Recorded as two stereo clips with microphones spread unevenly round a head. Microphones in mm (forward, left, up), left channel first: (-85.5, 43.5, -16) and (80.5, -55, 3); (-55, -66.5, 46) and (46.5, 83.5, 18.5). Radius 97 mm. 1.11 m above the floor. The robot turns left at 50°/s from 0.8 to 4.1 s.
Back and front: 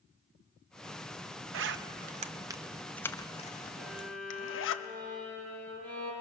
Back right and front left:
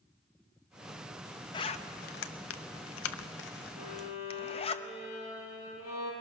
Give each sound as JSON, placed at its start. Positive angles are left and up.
{"t": 1.5, "sound": "a zipper", "azimuth_deg": -55, "distance_m": 0.8}
{"t": 3.8, "sound": "a violin", "azimuth_deg": -110, "distance_m": 6.0}